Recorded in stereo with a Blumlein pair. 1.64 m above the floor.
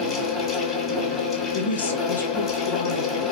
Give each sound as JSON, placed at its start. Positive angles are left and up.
{"t": 0.0, "sound": "a fan", "azimuth_deg": 20, "distance_m": 1.1}
{"t": 1.5, "sound": "a woman speaking", "azimuth_deg": 70, "distance_m": 0.7}